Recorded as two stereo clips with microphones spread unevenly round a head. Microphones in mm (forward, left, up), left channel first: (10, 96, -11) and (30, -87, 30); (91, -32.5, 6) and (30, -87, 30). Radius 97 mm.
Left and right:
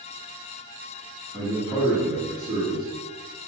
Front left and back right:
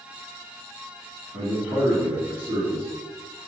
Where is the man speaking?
155° right, 2.5 m.